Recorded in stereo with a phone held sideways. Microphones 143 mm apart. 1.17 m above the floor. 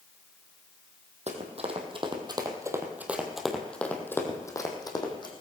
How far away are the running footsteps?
About 2.5 m.